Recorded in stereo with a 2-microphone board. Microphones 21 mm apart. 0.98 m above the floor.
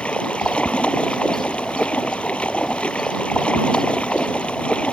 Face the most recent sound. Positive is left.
turn(degrees=75)  # may be behind; listen again after turning